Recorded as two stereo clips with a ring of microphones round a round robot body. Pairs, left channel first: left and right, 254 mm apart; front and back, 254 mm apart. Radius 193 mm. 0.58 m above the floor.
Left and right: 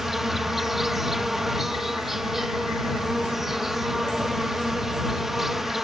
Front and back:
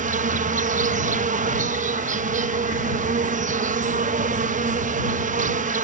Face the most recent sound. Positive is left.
turn(degrees=180)